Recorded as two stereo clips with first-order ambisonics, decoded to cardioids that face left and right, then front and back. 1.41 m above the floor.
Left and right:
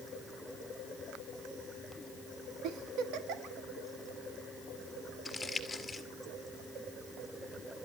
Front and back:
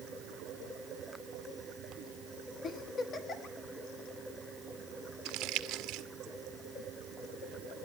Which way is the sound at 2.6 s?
60° right.